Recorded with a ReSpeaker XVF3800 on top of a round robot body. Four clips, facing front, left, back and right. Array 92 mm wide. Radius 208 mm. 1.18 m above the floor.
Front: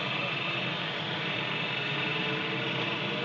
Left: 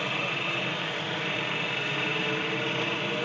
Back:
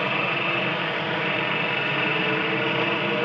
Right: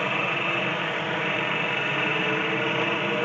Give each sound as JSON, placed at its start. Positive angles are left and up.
{"t": 0.0, "sound": "a helicopter", "azimuth_deg": -140}